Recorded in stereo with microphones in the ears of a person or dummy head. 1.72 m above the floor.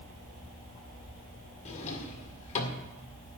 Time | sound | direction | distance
1.6 | a drawer | 30° left (ahead or behind) | 1.9 m